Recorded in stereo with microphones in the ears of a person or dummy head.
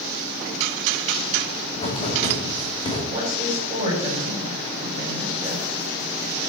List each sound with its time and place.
1.7 s writing: 35° left (ahead or behind), 4 m
3.1 s a woman speaking: 25° right (ahead or behind), 7.5 m